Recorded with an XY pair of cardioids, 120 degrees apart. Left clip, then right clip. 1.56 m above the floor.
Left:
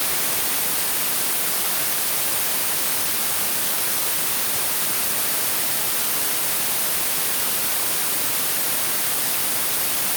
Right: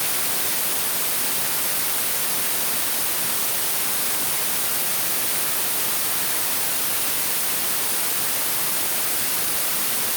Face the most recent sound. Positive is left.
No sound to turn to.